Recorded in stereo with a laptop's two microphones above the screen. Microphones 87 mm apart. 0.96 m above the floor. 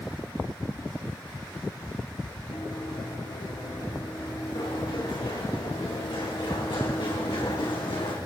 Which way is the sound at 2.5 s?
65° left (ahead or behind).